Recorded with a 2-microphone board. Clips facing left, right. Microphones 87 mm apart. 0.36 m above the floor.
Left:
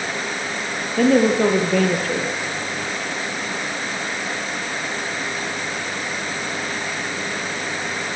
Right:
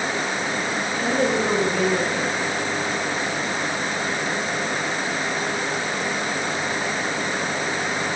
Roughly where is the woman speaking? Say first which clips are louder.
Left 8 dB; left.